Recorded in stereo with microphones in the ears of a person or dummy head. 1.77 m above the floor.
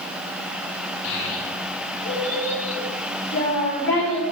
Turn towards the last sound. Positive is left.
turn(degrees=10)  # may be behind; listen again after turning